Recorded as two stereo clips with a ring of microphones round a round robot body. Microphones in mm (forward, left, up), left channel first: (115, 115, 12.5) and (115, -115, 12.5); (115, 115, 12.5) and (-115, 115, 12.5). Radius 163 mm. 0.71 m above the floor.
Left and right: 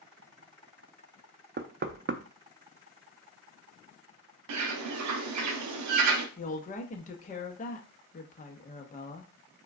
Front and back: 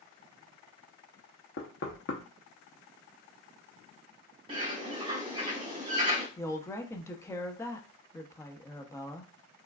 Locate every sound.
1.6 s knocking: 45° right, 0.5 m
4.5 s a bird: 105° right, 0.6 m
6.4 s a woman speaking: 70° left, 0.8 m